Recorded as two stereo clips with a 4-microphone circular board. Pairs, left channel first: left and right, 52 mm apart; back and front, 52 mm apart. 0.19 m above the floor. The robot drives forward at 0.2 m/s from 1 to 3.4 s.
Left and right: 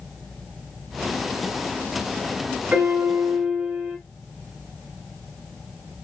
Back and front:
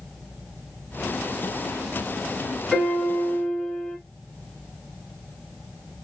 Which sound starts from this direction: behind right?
A piano, at 2.7 s.